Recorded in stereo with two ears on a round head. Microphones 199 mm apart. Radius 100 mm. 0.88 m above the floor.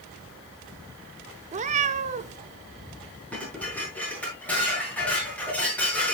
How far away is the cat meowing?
About 0.9 m.